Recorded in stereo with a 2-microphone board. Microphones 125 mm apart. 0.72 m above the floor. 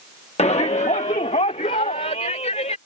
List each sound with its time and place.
0.4 s a shout: 55° left (ahead or behind); by 2.8 s 70° left (ahead or behind)